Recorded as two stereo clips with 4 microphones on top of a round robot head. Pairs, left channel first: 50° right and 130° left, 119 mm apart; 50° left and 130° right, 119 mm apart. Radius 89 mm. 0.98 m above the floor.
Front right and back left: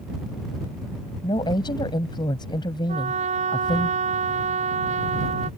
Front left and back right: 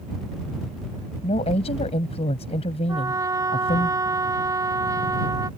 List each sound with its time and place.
1.2 s a woman speaking: 5° left
2.9 s a trumpet: 160° left